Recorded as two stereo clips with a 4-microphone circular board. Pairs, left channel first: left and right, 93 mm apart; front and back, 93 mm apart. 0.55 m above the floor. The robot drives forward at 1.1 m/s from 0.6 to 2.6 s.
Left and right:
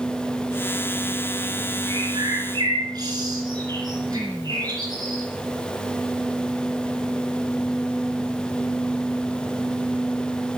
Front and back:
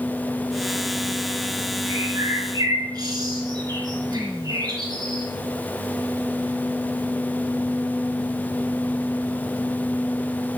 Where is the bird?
120° right, 3 m; by 5.2 s 135° right, 3.5 m.